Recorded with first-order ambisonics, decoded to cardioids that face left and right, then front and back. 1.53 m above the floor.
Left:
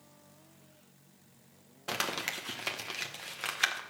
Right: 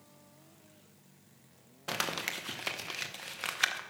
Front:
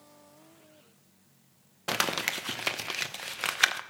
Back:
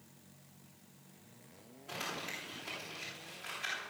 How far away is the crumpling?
About 1.0 m.